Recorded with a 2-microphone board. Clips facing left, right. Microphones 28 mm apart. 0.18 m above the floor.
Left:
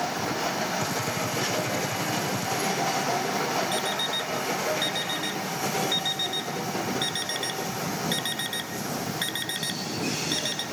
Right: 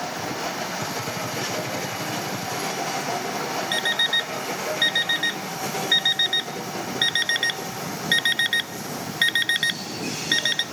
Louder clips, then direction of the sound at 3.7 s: Right 5 dB; 40° right (ahead or behind).